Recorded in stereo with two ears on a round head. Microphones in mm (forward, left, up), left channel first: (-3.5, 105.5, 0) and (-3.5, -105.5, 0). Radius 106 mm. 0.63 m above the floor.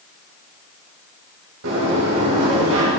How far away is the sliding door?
About 4 m.